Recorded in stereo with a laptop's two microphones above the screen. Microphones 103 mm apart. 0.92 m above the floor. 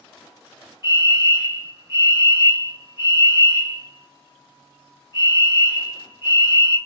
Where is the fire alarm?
40° left (ahead or behind), 1.7 m.